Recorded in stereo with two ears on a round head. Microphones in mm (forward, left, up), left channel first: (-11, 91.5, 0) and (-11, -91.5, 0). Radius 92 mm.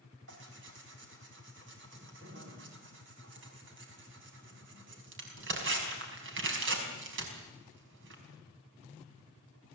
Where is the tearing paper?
60° right (ahead or behind), 5 m.